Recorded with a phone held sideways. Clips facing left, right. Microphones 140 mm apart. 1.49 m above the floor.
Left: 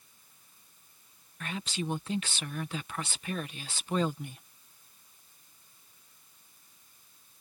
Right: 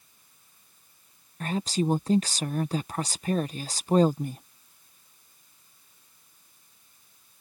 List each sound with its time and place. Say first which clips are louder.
1.4 s a woman speaking: right 9 dB; 40° right (ahead or behind)